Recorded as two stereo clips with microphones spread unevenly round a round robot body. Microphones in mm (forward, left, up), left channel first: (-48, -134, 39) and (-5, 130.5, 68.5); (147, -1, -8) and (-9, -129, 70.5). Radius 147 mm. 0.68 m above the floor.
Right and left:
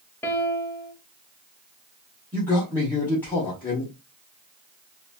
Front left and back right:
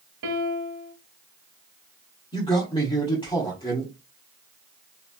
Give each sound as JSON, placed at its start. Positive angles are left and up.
{"t": 0.2, "sound": "a piano", "azimuth_deg": 180, "distance_m": 0.8}
{"t": 2.3, "sound": "a man speaking", "azimuth_deg": -20, "distance_m": 1.5}